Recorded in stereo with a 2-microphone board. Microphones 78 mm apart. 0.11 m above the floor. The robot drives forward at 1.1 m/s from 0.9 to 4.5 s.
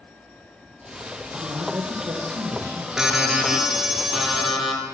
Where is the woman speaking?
65° right (ahead or behind), 4 m; by 2.9 s 50° right (ahead or behind), 5 m.